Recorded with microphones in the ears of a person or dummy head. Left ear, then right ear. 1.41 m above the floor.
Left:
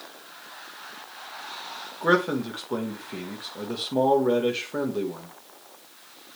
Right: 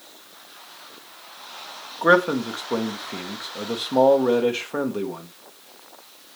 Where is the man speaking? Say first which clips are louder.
Right 5 dB; 20° right (ahead or behind), 1.1 m.